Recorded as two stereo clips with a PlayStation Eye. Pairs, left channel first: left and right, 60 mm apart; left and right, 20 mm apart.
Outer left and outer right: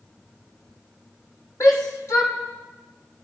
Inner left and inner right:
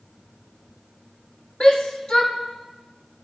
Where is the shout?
60° left (ahead or behind), 4.5 m.